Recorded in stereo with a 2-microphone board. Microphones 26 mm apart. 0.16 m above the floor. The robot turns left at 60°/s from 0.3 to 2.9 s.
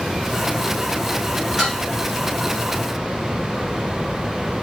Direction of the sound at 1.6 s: Centre (ahead or behind).